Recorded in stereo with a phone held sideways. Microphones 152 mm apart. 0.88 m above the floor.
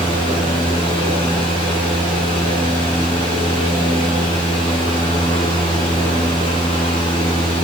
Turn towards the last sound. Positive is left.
turn(degrees=40)  # may be behind; listen again after turning